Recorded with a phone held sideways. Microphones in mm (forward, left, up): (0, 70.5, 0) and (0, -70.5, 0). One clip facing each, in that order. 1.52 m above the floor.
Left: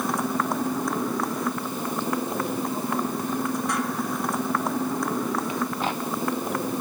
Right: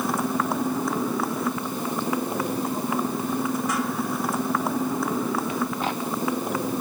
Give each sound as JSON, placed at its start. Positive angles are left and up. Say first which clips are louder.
{"t": 0.0, "sound": "a motorcycle", "louder": "right 1 dB", "side_deg": 0}